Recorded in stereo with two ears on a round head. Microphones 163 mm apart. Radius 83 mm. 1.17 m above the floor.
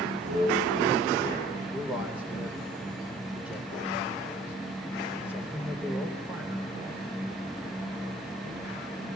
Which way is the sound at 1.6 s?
10° right (ahead or behind).